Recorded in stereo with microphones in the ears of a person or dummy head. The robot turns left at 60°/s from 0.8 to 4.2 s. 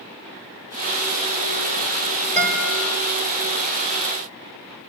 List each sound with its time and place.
2.4 s a guitar: 5° left (ahead or behind), 6.5 m; by 2.8 s 25° right (ahead or behind), 6.5 m